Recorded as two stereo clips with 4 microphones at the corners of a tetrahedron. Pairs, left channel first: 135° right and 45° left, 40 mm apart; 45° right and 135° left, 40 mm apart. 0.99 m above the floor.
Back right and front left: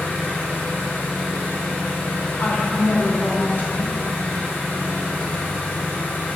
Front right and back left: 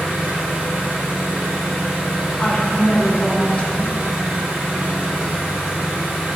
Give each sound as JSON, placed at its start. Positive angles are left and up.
{"t": 0.0, "sound": "an engine running", "azimuth_deg": -170, "distance_m": 0.9}
{"t": 2.4, "sound": "a woman speaking", "azimuth_deg": -100, "distance_m": 0.7}